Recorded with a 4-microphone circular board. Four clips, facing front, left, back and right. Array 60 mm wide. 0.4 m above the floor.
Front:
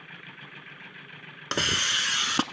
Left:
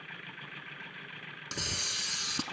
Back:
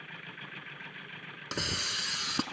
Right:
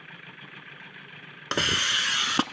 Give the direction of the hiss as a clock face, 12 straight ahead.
2 o'clock.